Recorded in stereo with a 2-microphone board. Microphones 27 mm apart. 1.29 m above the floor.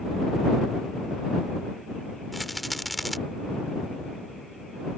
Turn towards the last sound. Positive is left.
turn(degrees=0)  # may be behind; listen again after turning